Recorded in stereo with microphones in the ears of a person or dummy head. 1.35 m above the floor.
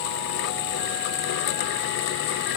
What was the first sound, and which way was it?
Only background noise.